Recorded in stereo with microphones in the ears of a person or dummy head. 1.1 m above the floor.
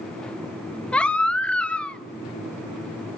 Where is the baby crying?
5° left (ahead or behind), 0.6 m.